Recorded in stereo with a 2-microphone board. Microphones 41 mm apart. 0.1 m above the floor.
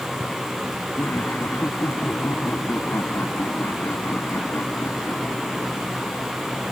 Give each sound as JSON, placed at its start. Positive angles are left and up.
{"t": 1.0, "sound": "laughter", "side_deg": 70}